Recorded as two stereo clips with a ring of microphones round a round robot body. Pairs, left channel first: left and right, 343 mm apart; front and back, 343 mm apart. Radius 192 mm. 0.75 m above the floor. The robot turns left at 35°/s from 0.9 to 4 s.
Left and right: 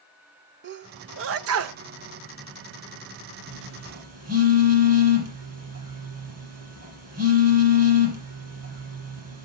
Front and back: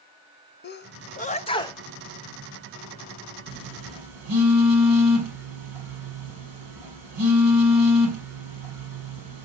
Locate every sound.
0.6 s a sneeze: 50° right, 0.6 m; by 1.8 s 80° right, 0.6 m
3.5 s a phone buzzing: 120° right, 6 m; by 9.5 s 140° right, 6 m